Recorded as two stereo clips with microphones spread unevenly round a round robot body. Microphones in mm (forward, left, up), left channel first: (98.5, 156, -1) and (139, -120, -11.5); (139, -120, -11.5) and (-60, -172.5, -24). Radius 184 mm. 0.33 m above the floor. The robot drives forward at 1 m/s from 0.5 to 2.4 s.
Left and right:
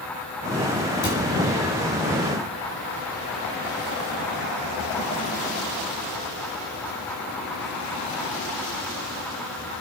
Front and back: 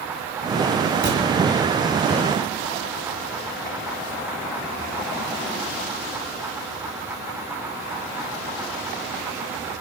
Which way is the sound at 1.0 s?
155° left.